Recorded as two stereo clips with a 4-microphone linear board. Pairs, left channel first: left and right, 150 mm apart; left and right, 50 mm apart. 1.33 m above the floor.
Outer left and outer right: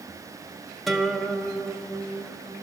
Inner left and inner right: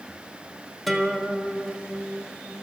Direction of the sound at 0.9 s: Centre (ahead or behind).